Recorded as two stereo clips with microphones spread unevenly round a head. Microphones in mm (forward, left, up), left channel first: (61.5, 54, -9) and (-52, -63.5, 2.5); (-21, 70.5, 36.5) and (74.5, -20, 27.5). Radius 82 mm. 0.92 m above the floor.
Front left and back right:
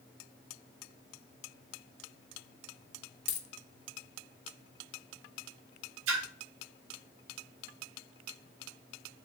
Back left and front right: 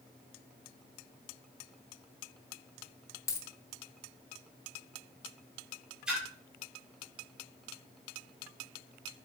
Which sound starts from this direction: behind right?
A splash, at 6.1 s.